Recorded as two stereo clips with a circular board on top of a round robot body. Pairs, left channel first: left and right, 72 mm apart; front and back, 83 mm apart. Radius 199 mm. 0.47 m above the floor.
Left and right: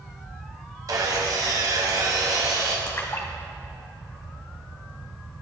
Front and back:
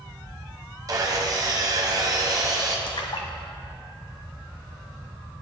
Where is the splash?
30° left, 0.9 m.